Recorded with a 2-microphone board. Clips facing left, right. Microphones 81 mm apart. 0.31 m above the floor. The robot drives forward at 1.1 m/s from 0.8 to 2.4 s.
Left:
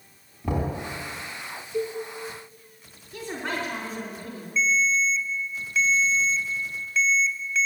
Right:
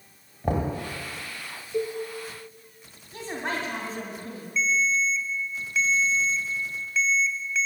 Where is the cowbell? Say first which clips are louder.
Even; 55° right (ahead or behind), 2.0 m; by 2.0 s 60° right (ahead or behind), 1.8 m.